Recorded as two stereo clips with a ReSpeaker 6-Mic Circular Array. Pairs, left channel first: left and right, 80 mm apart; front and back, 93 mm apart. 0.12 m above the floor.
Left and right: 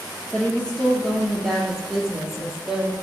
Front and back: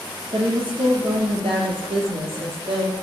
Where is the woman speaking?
165° left, 3 m; by 2.9 s 170° right, 3.5 m.